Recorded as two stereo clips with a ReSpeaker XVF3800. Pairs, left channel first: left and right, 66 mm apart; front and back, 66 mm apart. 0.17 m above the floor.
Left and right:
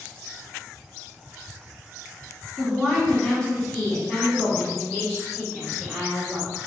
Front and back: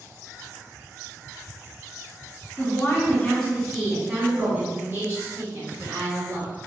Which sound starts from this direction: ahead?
A woman speaking, at 2.6 s.